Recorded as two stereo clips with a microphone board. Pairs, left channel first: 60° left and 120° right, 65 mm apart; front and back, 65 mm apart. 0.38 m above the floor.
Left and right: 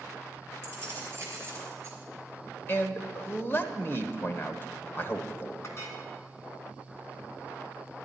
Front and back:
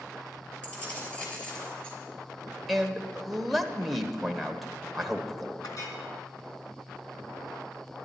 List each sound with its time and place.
0.6 s keys jangling: 65° right, 5 m; by 2.0 s 70° right, 4 m
2.7 s a man speaking: 90° left, 1.1 m
5.6 s a clink: 15° left, 2.5 m